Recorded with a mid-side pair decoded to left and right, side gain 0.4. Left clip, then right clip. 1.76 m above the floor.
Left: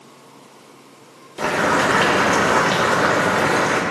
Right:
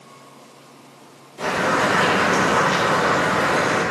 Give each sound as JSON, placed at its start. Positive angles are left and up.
{"t": 1.4, "sound": "boiling", "azimuth_deg": 55, "distance_m": 4.5}